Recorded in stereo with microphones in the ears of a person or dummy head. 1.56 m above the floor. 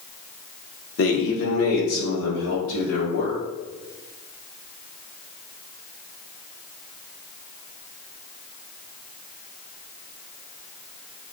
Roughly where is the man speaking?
Left.